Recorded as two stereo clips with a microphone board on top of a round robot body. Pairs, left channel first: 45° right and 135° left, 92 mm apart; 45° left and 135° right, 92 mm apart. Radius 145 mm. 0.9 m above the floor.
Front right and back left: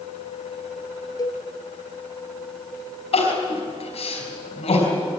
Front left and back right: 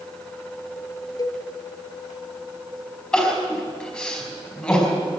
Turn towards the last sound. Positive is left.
turn(degrees=-35)